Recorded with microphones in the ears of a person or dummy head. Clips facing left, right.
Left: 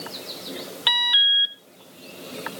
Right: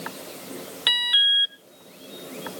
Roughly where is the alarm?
Right.